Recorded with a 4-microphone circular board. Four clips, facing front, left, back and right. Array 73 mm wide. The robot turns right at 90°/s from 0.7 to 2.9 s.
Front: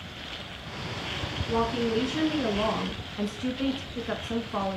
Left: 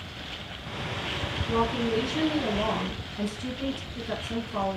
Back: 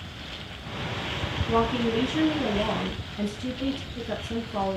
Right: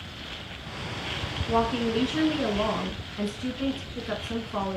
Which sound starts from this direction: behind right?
A woman speaking, at 1.5 s.